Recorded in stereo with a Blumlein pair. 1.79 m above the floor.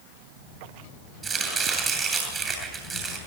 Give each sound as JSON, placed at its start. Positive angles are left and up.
{"t": 1.2, "sound": "chopping", "azimuth_deg": -20, "distance_m": 9.0}